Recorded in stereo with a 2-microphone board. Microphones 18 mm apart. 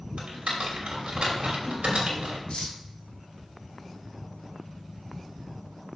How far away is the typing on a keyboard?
About 2.5 m.